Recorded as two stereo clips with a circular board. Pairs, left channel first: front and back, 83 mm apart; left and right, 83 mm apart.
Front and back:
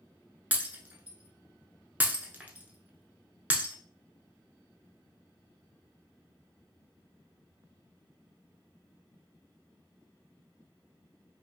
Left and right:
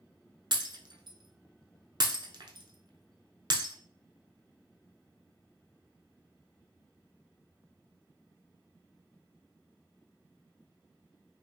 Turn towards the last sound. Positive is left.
turn(degrees=-110)